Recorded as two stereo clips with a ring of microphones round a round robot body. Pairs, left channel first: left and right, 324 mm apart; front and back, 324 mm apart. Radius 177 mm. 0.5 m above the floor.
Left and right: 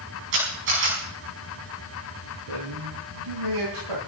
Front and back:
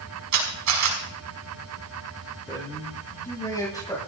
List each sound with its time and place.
0.3 s a camera shutter: 150° right, 5.5 m
2.5 s a man speaking: 80° right, 10 m